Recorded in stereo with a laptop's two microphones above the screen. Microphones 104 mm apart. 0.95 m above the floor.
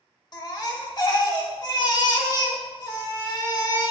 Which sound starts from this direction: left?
A baby crying, at 0.3 s.